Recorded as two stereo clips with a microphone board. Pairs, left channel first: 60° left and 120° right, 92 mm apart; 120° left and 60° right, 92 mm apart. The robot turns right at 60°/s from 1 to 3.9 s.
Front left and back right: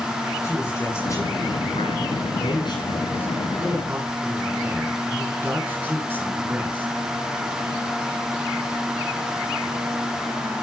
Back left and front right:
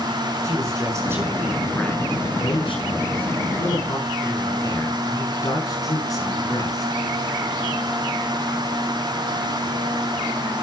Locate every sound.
0.4 s a man speaking: 5° right, 6 m; by 6.9 s 170° left, 6 m